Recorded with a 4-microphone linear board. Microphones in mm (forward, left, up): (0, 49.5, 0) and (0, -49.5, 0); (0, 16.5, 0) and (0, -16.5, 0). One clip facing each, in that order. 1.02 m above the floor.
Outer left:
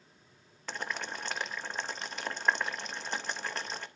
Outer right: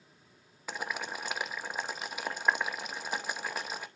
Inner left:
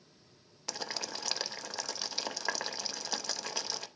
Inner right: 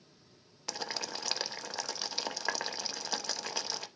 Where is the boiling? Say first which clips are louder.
Outer right 1 dB, inner right 1 dB; 10° right (ahead or behind), 0.7 m.